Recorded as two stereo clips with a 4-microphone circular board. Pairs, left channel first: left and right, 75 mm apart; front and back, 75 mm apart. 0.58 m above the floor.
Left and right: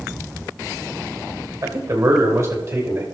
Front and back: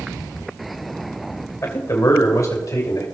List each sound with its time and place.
1.6 s a man speaking: 40° right, 2.5 m; by 3.0 s 30° right, 3.5 m